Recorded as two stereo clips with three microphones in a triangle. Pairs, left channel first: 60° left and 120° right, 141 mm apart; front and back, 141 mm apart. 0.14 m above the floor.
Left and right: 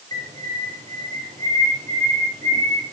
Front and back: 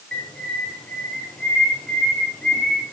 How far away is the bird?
About 2.5 m.